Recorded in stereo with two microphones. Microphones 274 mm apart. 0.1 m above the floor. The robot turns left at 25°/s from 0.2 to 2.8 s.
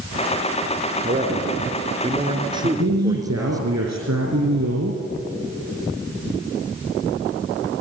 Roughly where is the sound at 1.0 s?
Right.